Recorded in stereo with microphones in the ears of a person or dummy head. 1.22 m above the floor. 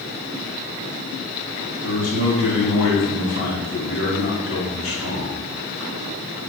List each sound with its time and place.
1.8 s a man speaking: 65° left (ahead or behind), 1.4 m